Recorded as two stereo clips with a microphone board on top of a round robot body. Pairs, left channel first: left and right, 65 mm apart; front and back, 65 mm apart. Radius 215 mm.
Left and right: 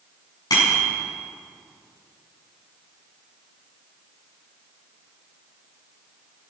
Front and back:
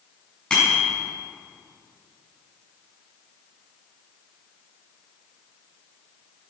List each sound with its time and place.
0.5 s a bicycle bell: 80° left, 6.5 m